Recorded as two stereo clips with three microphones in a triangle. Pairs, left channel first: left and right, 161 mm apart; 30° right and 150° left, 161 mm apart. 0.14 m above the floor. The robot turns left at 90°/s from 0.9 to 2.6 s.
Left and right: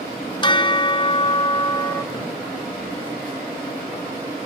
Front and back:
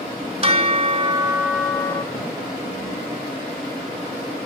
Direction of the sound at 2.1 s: 25° left.